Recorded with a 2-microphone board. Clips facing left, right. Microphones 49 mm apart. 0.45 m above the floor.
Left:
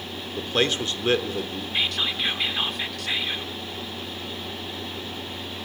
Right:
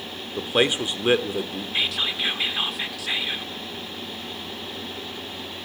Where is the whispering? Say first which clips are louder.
Even; centre (ahead or behind), 1.0 m.